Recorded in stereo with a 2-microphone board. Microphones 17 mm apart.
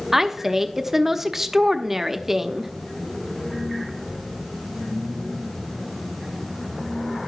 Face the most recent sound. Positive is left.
turn(degrees=-20)  # may be behind; listen again after turning